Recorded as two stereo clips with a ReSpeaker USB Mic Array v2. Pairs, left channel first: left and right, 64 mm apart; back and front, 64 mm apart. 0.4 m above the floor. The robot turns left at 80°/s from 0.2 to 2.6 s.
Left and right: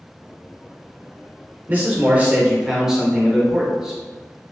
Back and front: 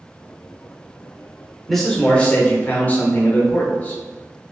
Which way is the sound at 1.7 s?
90° right.